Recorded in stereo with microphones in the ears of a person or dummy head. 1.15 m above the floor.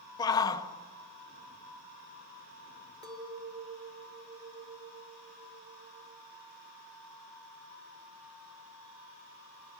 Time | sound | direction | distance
0.2 | a shout | 15° left (ahead or behind) | 1.5 m
3.0 | a clink | 25° right (ahead or behind) | 2 m